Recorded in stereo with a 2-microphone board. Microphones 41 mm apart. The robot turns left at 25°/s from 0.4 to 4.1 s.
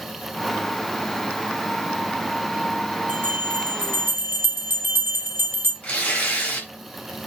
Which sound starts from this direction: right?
A bell, at 3.1 s.